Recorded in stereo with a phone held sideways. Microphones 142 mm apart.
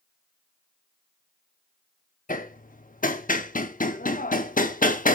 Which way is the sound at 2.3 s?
70° left (ahead or behind).